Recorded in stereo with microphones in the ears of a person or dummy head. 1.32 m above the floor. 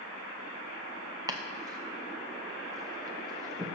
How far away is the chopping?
About 0.7 m.